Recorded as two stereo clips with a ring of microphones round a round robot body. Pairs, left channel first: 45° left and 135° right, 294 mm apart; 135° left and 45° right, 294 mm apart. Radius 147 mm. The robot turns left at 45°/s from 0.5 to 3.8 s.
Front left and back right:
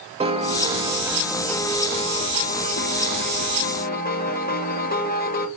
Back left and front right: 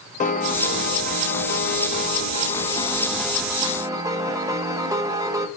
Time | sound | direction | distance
0.2 | a piano | 170° left | 0.9 m